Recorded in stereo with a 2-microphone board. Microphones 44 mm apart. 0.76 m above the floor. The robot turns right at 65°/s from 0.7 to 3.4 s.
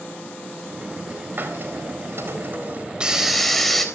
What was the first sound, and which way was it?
A hiss, 125° right.